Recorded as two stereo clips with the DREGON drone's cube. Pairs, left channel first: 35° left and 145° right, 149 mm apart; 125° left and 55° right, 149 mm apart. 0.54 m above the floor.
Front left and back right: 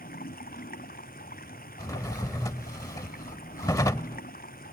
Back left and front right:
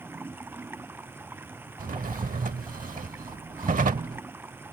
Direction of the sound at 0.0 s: 20° left.